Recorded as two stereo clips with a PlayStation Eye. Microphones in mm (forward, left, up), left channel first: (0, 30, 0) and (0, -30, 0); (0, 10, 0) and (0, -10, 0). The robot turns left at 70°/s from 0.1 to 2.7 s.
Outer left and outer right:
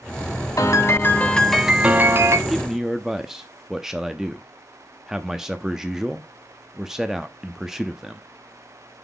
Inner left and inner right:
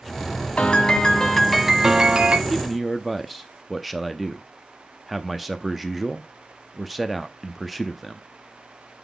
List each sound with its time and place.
0.6 s a piano: 70° left, 1.0 m; by 2.4 s 55° right, 1.0 m
2.5 s a man speaking: centre (ahead or behind), 0.6 m; by 8.2 s 5° right (ahead or behind), 0.6 m